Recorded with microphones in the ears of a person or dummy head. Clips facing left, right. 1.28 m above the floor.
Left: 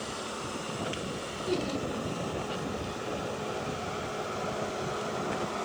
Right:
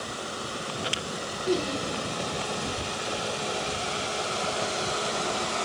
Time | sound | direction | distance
1.5 | laughter | 40° right (ahead or behind) | 1.6 m